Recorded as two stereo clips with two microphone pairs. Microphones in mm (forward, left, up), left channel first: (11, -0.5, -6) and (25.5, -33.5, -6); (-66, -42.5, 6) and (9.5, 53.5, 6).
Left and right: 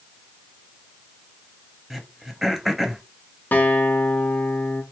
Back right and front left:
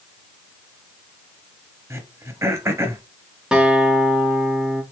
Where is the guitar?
135° left, 0.6 m.